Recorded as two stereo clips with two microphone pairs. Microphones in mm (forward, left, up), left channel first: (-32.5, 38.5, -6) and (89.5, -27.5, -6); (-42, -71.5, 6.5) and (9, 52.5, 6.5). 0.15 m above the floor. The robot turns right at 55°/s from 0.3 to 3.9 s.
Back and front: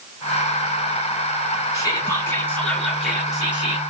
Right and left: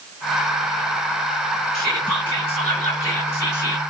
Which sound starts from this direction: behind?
Whispering, at 1.7 s.